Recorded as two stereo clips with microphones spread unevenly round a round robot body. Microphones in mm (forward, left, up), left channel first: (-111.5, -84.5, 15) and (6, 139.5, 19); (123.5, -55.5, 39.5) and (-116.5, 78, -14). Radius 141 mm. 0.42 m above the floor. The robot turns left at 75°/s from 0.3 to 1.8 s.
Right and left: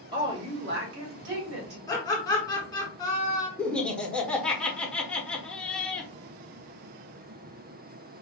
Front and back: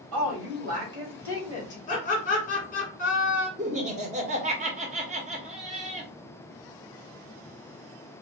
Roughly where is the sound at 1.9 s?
Right.